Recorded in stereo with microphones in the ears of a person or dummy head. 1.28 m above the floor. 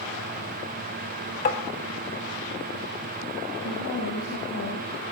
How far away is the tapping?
About 2 m.